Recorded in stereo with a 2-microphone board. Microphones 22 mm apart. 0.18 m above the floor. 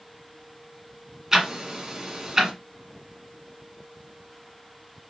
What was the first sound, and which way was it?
Ticking, 15° right (ahead or behind).